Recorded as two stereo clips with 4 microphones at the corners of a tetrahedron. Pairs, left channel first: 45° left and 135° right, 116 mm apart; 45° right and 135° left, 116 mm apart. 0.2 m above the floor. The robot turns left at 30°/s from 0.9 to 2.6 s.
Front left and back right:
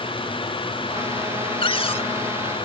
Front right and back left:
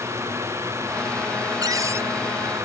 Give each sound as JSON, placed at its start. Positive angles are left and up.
{"t": 1.6, "sound": "a cupboard door", "azimuth_deg": 80}